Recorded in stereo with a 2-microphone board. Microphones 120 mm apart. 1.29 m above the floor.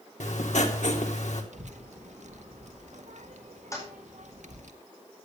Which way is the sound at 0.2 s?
80° left.